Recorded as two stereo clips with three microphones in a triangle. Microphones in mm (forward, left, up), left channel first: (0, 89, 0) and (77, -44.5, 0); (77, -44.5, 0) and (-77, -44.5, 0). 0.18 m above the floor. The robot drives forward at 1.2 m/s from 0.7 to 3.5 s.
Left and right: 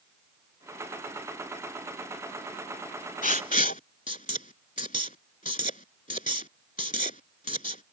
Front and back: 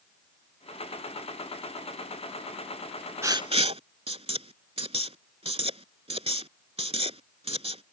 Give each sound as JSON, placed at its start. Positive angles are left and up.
{"t": 3.2, "sound": "writing", "azimuth_deg": 115}